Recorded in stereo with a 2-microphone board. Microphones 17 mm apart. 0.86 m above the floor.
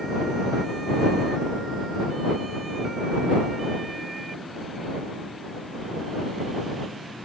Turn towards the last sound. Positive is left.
No sound to turn to.